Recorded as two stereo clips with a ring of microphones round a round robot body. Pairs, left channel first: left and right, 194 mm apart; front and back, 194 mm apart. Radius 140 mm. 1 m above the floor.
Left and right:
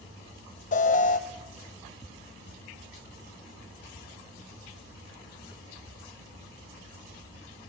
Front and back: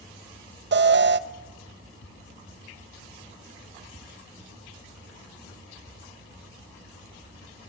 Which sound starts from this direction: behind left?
An alarm, at 0.7 s.